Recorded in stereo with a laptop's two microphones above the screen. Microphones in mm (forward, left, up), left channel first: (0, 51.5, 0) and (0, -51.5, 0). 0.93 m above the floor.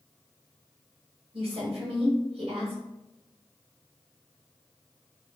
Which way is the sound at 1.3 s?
70° right (ahead or behind).